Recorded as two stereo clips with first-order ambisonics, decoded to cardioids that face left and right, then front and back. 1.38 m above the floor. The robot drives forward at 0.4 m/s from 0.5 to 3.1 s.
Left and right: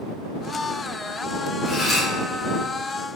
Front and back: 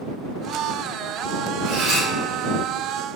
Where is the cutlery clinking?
165° left, 1.7 m.